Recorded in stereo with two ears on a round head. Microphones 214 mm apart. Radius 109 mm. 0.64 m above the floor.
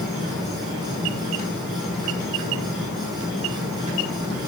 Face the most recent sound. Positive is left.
turn(degrees=0)  # may be behind; listen again after turning